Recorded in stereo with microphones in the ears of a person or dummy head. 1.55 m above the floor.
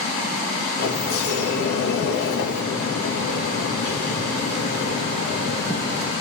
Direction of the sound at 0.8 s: 55° left (ahead or behind).